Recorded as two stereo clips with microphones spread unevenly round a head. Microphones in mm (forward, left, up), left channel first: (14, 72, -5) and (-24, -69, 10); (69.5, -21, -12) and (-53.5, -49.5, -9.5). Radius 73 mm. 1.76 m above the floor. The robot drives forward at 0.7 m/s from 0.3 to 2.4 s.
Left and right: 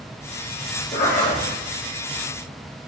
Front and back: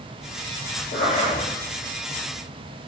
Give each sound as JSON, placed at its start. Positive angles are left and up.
{"t": 0.9, "sound": "a zipper", "azimuth_deg": 35, "distance_m": 3.5}